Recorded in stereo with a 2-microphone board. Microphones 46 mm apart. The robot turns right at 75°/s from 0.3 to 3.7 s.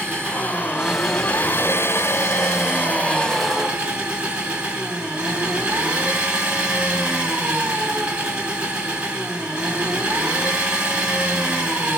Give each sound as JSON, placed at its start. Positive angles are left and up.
{"t": 0.0, "sound": "an engine running", "azimuth_deg": -55, "distance_m": 3.5}